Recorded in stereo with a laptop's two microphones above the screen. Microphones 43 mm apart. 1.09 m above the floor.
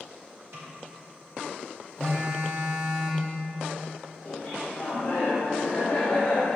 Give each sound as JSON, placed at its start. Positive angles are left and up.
{"t": 0.5, "sound": "a snare drum", "side_deg": -75, "distance_m": 1.3}
{"t": 2.0, "sound": "a phone buzzing", "side_deg": -65, "distance_m": 1.5}
{"t": 4.2, "sound": "laughter", "side_deg": 20, "distance_m": 1.4}